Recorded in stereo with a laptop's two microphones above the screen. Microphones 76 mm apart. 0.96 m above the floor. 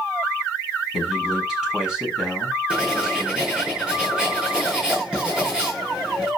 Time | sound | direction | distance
0.9 | a man speaking | 10° right (ahead or behind) | 7 m
2.7 | writing | 10° right (ahead or behind) | 10 m